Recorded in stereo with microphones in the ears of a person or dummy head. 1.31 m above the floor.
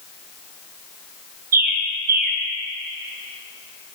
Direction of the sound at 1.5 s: 50° right (ahead or behind).